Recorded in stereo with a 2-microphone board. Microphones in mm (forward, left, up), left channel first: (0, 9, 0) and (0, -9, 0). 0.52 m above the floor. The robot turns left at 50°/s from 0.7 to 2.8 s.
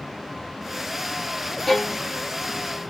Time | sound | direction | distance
1.7 | a violin | 10° left (ahead or behind) | 0.7 m